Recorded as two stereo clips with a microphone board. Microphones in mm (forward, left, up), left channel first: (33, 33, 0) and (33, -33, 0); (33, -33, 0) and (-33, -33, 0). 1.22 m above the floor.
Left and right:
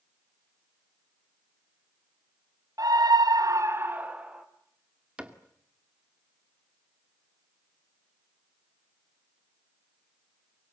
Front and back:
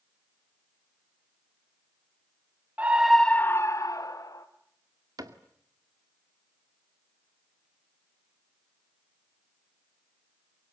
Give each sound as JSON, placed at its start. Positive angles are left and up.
{"t": 2.8, "sound": "a scream", "azimuth_deg": -115, "distance_m": 1.0}
{"t": 5.2, "sound": "a cupboard door", "azimuth_deg": -165, "distance_m": 1.9}